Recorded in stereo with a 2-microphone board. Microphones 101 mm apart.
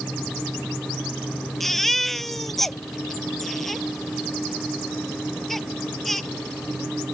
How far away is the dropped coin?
I don't hear a dropped coin.